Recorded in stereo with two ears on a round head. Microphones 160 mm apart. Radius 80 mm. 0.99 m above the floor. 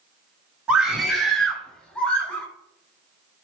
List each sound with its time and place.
0.7 s a scream: 5° right (ahead or behind), 3 m; by 2.5 s 5° left (ahead or behind), 4.5 m